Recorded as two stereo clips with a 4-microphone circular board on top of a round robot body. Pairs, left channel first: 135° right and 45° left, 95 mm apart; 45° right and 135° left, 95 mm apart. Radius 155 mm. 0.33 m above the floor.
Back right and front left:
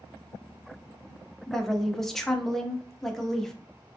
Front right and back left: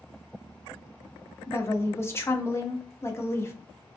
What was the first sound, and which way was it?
A woman speaking, 55° right.